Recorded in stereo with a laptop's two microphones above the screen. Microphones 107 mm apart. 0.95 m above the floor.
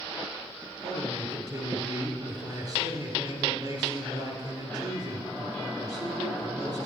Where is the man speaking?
40° right (ahead or behind), 3 m.